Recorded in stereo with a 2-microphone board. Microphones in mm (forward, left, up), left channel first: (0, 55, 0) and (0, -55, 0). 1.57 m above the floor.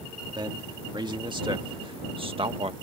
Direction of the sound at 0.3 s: 45° right (ahead or behind).